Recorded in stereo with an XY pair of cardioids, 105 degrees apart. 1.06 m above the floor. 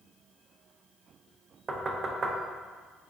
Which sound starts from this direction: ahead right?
Knocking, at 1.7 s.